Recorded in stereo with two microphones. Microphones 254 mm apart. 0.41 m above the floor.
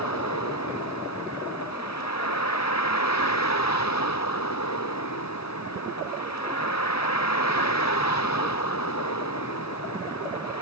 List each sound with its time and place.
0.0 s a vehicle: 90° left